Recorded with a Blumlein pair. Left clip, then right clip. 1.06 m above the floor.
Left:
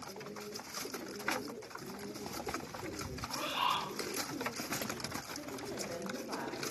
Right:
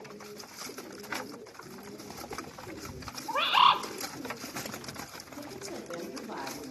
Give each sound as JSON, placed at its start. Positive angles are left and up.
{"t": 3.3, "sound": "a bird", "azimuth_deg": -50, "distance_m": 1.0}
{"t": 5.4, "sound": "a woman speaking", "azimuth_deg": -10, "distance_m": 2.0}